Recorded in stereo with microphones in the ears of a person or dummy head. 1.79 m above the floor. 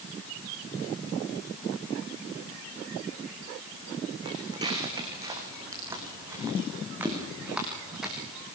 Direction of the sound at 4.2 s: 30° right (ahead or behind).